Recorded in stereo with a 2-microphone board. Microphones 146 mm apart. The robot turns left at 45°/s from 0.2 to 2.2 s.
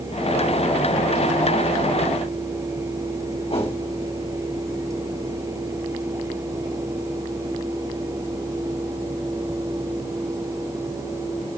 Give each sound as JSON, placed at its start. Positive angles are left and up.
{"t": 3.5, "sound": "a whoosh", "side_deg": 40, "distance_m": 4.0}